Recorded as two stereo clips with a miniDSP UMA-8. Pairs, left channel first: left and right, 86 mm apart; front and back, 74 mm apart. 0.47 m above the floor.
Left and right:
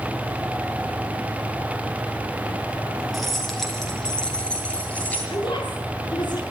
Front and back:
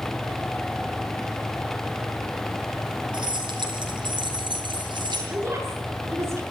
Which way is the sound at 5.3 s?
125° left.